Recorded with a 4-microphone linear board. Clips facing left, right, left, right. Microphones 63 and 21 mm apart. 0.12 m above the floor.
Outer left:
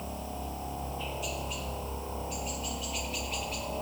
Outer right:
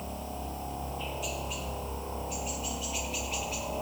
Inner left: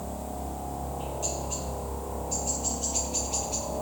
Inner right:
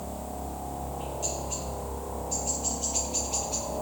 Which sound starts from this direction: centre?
A helicopter, at 0.0 s.